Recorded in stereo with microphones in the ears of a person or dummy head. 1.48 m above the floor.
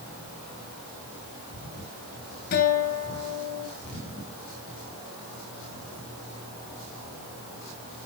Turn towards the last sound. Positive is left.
turn(degrees=55)  # may be behind; listen again after turning